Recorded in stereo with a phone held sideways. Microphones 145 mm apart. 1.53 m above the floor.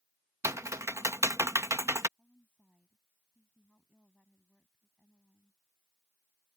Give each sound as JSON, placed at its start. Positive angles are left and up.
{"t": 0.4, "sound": "typing on a keyboard", "side_deg": -20}
{"t": 2.2, "sound": "a woman speaking", "side_deg": 5}